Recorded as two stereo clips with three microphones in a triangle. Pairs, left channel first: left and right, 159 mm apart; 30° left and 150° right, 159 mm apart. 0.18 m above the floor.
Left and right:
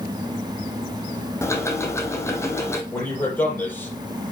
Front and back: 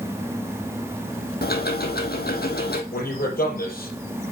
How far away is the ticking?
About 1.5 m.